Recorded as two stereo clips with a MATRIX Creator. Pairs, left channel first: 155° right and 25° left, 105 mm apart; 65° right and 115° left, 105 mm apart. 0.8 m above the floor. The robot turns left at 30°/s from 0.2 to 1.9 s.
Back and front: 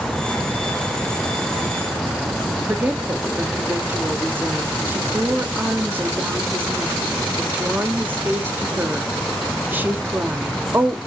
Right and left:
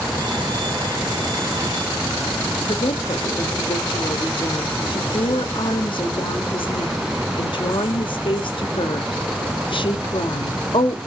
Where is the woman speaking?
45° right, 1.2 m.